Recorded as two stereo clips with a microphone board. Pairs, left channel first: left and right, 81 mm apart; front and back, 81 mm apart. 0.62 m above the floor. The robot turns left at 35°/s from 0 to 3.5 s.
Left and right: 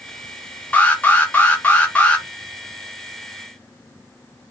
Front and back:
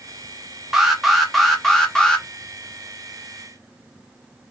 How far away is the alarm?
About 0.8 m.